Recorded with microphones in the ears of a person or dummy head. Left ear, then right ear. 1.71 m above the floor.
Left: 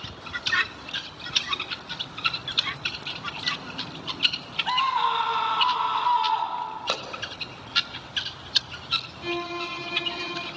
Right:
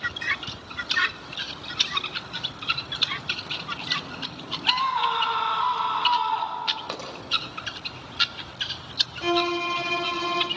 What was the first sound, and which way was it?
A scream, centre (ahead or behind).